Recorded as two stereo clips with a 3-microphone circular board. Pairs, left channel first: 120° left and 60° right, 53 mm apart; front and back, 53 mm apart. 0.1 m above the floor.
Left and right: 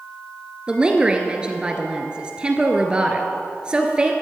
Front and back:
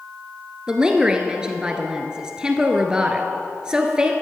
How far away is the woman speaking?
About 1.3 m.